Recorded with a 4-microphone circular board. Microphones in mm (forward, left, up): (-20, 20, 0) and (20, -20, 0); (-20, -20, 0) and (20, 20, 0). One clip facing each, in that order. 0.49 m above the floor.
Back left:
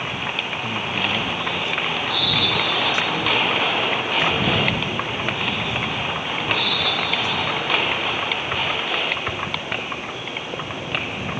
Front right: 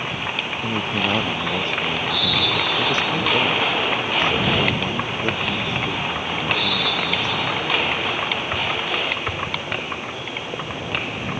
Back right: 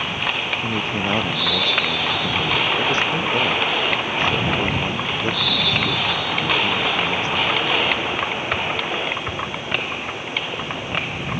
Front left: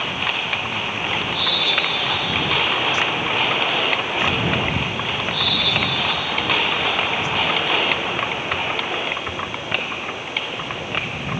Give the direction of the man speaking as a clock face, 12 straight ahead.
3 o'clock.